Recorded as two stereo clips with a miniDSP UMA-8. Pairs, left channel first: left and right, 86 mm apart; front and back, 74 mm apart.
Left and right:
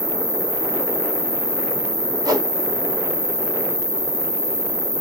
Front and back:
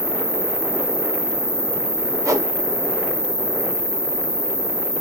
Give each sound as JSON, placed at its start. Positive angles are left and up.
{"t": 0.0, "sound": "an insect", "azimuth_deg": -145, "distance_m": 1.0}
{"t": 2.2, "sound": "a whoosh", "azimuth_deg": -135, "distance_m": 0.9}